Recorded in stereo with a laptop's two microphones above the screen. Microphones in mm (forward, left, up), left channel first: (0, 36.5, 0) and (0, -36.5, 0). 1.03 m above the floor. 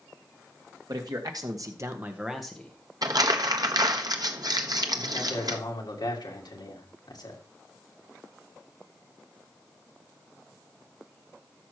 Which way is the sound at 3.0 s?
60° right (ahead or behind).